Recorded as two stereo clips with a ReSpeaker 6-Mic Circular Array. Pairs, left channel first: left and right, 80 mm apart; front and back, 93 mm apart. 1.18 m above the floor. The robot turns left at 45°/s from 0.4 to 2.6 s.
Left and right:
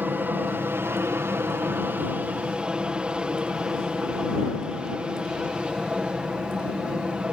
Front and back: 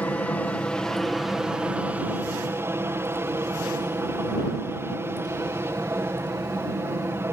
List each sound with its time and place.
0.0 s an aircraft: 55° right; by 7.3 s 155° right